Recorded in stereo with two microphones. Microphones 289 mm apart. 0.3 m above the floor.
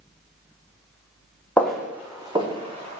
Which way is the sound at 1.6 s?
5° left (ahead or behind).